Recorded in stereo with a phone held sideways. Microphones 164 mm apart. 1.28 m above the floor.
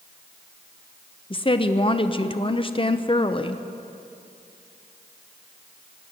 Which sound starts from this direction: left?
A woman speaking, at 1.3 s.